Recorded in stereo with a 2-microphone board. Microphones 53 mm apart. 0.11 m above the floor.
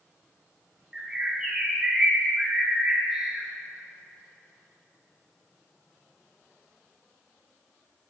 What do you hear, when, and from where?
0.9 s a bird: 15° right (ahead or behind), 4 m